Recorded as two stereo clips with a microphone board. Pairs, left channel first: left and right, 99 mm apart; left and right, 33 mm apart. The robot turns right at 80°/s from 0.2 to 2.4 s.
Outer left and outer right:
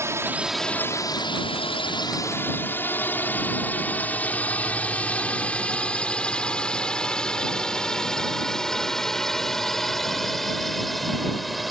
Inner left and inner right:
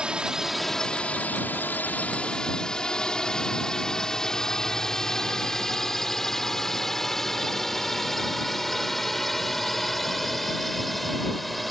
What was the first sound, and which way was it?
A drone, 30° right (ahead or behind).